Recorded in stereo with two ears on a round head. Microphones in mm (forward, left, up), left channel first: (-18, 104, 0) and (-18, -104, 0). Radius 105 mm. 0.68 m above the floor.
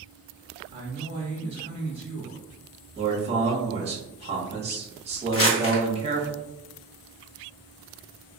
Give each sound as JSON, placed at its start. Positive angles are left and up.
{"t": 0.7, "sound": "a man speaking", "side_deg": -25, "distance_m": 1.1}
{"t": 3.0, "sound": "a man speaking", "side_deg": -30, "distance_m": 1.2}
{"t": 5.3, "sound": "crumpling", "side_deg": 70, "distance_m": 1.3}